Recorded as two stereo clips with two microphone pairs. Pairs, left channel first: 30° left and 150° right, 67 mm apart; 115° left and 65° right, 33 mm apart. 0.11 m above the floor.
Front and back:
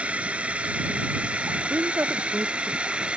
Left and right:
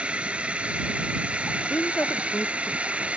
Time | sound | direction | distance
0.0 | a drone | 90° right | ?
1.7 | a woman speaking | 150° left | ?